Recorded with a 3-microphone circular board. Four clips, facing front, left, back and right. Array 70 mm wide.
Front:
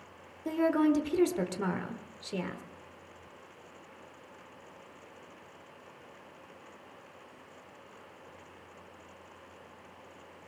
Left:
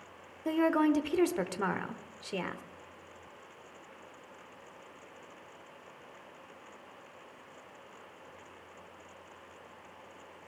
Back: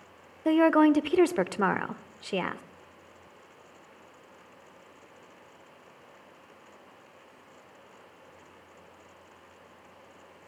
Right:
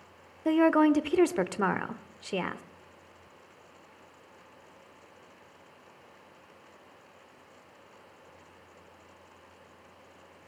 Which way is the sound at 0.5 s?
155° right.